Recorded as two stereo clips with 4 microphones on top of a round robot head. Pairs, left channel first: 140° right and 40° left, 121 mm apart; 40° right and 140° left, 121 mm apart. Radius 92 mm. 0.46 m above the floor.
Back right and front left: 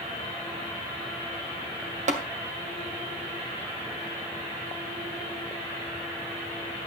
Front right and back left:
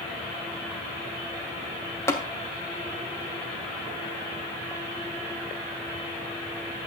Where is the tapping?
30° left, 2 m.